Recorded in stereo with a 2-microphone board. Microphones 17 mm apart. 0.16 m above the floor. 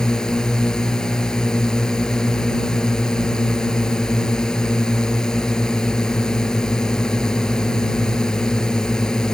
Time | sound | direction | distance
0.0 | a drone | 55° left (ahead or behind) | ?